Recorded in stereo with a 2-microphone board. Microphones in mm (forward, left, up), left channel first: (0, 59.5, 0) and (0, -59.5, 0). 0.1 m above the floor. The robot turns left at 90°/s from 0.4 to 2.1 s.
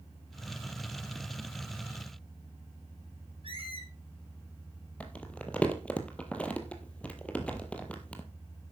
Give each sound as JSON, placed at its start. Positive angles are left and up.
{"t": 3.4, "sound": "a squeak", "side_deg": -50, "distance_m": 2.0}
{"t": 5.0, "sound": "crumpling", "side_deg": 10, "distance_m": 1.4}